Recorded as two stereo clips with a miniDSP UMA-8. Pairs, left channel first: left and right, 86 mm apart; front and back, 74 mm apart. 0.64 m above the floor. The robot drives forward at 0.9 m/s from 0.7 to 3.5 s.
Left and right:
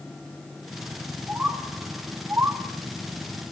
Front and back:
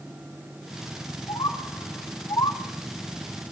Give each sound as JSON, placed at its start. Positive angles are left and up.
{"t": 1.3, "sound": "a bird", "azimuth_deg": -15, "distance_m": 2.5}